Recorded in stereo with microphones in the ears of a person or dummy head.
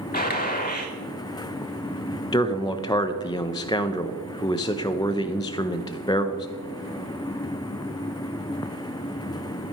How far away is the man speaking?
About 0.6 m.